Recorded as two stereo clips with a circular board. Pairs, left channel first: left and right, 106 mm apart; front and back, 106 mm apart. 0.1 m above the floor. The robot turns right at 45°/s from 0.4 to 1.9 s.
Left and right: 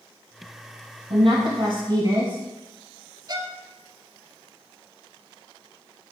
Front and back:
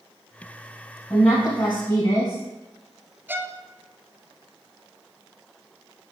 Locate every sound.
1.1 s a woman speaking: 75° right, 2.5 m; by 2.4 s 35° right, 2.5 m
3.3 s a violin: 115° right, 0.5 m